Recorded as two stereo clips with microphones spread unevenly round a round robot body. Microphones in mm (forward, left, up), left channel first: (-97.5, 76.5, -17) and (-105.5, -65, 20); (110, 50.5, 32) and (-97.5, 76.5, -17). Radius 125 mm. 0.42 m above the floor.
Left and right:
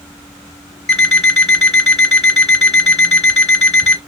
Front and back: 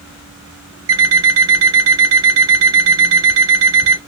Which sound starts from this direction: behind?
An alarm clock, at 0.9 s.